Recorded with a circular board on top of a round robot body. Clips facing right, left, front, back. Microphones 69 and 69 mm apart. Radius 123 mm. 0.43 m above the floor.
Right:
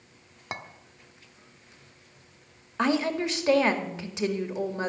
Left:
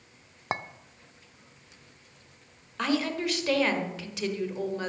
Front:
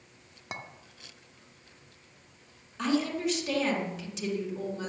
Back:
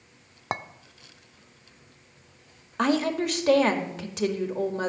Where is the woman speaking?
155° right, 2.0 m.